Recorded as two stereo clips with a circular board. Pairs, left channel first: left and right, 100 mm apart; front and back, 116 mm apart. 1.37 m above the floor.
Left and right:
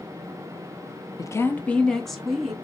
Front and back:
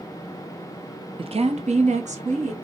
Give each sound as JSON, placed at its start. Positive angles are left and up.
{"t": 1.2, "sound": "a woman speaking", "azimuth_deg": 140, "distance_m": 0.6}